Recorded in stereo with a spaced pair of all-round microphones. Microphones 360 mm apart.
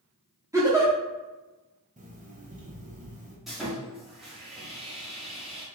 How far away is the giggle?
About 0.9 m.